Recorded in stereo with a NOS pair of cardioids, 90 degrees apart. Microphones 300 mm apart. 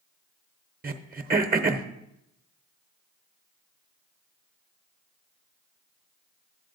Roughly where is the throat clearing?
Ahead right.